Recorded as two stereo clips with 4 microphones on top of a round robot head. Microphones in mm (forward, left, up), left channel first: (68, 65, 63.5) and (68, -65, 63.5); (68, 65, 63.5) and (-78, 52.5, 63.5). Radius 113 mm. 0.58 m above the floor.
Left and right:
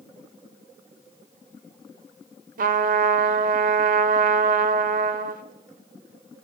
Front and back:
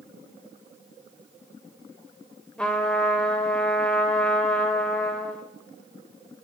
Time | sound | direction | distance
2.6 | a trumpet | 80° right | 0.8 m